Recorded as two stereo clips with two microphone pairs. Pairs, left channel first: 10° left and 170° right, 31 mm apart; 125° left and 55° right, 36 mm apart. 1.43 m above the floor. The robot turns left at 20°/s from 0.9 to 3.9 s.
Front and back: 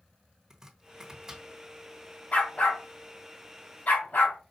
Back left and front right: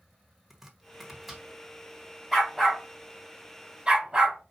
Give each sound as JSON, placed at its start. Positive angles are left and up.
{"t": 0.5, "sound": "chopping", "azimuth_deg": -125, "distance_m": 1.2}
{"t": 2.3, "sound": "a dog barking", "azimuth_deg": 40, "distance_m": 2.5}